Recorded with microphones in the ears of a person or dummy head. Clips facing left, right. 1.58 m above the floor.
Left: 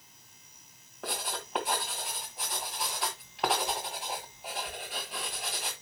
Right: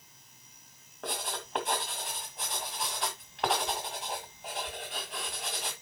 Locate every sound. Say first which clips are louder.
1.0 s writing: even; 5° left (ahead or behind), 1.6 m